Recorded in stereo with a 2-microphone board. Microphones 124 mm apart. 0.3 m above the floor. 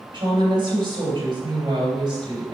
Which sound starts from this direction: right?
A woman speaking, at 0.1 s.